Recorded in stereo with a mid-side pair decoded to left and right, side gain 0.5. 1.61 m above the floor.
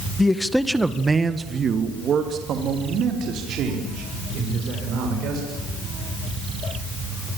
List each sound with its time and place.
0.2 s a man speaking: 20° left, 1.7 m; by 5.5 s 75° right, 8 m